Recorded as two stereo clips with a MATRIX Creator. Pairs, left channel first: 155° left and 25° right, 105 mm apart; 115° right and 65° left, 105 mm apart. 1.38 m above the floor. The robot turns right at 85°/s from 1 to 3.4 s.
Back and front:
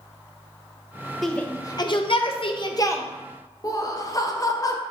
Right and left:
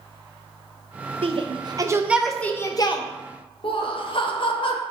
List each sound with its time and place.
1.2 s a shout: 70° left, 0.6 m; by 3.0 s 135° right, 0.6 m
3.6 s laughter: 150° right, 0.6 m